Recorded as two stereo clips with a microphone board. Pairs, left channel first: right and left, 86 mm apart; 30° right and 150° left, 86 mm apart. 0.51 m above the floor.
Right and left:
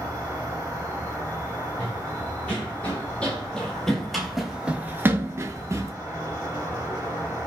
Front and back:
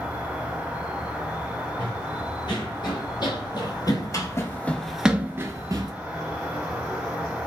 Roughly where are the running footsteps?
Ahead.